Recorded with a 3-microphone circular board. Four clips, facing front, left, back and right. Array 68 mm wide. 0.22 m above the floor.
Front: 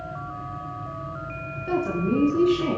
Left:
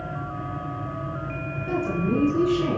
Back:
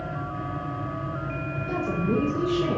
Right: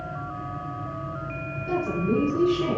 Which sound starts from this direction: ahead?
A woman speaking, at 1.7 s.